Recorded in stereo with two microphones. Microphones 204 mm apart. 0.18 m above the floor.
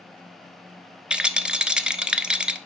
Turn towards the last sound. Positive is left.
turn(degrees=-5)  # may be behind; listen again after turning